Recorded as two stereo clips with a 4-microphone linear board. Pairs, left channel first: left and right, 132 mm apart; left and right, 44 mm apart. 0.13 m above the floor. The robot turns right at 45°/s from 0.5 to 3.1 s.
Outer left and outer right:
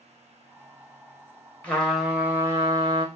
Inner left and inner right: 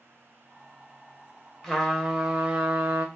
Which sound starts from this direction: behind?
A trumpet, at 1.6 s.